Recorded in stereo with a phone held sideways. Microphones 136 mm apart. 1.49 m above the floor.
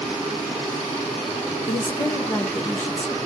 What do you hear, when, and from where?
1.7 s a woman speaking: 35° left (ahead or behind), 0.6 m; by 3.1 s 10° left (ahead or behind), 1.6 m